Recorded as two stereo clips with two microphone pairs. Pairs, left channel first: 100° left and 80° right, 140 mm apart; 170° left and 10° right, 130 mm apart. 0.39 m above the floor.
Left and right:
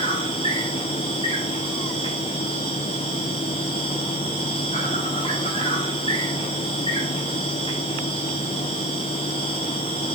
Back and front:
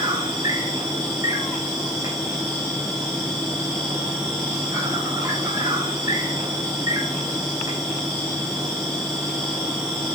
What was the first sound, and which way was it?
An insect, 50° left.